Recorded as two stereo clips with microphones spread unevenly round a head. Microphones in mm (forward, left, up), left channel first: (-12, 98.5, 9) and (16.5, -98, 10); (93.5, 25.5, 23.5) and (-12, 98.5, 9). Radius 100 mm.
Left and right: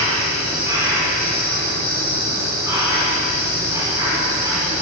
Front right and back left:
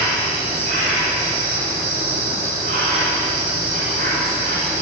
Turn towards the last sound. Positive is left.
turn(degrees=-155)